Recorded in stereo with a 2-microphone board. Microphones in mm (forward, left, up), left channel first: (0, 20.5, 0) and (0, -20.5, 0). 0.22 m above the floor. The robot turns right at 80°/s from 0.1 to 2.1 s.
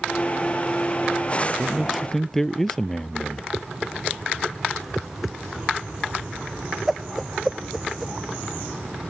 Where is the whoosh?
5° right (ahead or behind).